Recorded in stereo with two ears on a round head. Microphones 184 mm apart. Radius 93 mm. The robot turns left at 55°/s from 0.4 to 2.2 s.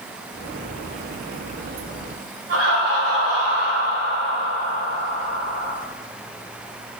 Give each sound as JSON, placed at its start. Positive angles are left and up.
{"t": 2.5, "sound": "laughter", "side_deg": -65, "distance_m": 2.0}